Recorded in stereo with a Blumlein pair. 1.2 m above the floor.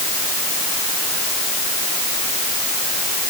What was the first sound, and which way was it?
Only background noise.